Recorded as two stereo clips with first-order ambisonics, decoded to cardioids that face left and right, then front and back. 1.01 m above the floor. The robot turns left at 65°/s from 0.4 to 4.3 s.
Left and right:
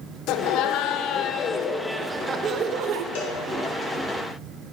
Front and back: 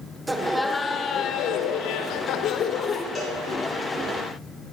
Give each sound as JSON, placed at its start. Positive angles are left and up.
{"t": 0.3, "sound": "laughter", "azimuth_deg": 100, "distance_m": 1.3}
{"t": 3.1, "sound": "a cowbell", "azimuth_deg": 95, "distance_m": 3.5}